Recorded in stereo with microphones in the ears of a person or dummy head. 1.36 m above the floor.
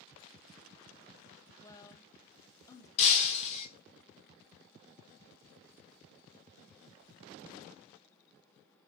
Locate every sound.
1.6 s a woman speaking: 25° left (ahead or behind), 0.9 m
3.0 s breaking glass: 45° left (ahead or behind), 2 m